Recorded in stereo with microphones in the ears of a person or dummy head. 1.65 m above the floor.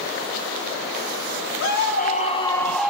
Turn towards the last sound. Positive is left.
turn(degrees=-5)  # may be behind; listen again after turning